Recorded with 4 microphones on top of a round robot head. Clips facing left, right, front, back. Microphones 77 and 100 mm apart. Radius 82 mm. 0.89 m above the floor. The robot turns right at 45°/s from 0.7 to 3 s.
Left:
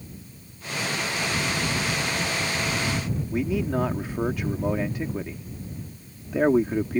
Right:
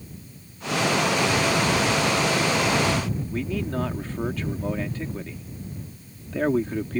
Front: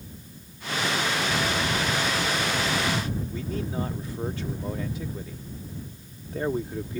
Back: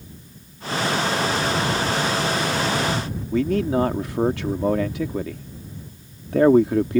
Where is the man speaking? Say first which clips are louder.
Left 4 dB, back 11 dB; 170° left.